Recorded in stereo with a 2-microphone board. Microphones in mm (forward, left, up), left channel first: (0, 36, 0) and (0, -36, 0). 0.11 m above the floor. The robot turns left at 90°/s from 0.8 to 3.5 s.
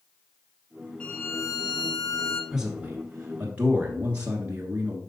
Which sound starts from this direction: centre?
A man speaking, at 2.5 s.